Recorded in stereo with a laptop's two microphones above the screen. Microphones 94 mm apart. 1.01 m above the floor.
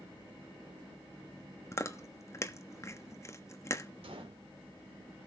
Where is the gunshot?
70° right (ahead or behind), 2.5 m.